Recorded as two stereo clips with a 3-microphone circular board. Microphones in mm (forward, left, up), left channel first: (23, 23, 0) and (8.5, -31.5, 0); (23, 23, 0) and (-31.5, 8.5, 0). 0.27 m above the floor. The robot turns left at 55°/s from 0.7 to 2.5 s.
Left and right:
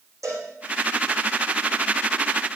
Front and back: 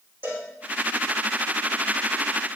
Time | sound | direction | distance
0.2 | a cowbell | 110° right | 8 m